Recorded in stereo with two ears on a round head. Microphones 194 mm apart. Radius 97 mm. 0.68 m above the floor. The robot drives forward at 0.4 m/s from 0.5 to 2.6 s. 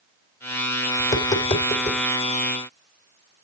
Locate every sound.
1.0 s tapping: 40° left (ahead or behind), 2 m; by 2.0 s 35° left (ahead or behind), 2.5 m